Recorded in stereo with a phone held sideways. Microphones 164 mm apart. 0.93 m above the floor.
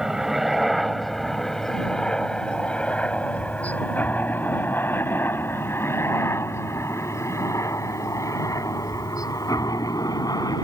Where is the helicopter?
5° right (ahead or behind); by 10.7 s 20° left (ahead or behind).